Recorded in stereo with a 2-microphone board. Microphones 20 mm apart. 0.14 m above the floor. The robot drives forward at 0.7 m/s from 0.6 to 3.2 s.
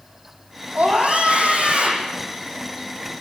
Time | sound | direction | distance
0.8 | a scream | 80° right | 7 m